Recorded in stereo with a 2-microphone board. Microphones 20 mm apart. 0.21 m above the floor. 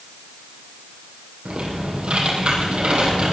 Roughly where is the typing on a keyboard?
Right.